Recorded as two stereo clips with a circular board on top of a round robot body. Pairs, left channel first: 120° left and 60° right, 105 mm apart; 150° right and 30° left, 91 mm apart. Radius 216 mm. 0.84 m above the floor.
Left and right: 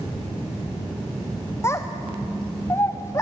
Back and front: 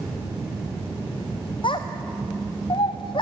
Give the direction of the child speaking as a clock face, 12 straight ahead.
6 o'clock.